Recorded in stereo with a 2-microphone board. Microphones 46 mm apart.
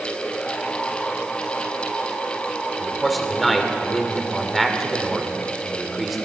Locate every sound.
2.8 s a man speaking: centre (ahead or behind), 2 m